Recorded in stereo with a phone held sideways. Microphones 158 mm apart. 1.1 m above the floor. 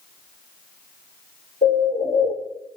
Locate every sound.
1.6 s a bird: 80° left, 2.5 m